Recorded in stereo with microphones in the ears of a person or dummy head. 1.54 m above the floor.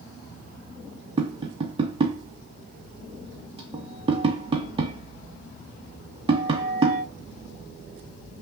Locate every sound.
1.2 s tapping: 25° right (ahead or behind), 0.7 m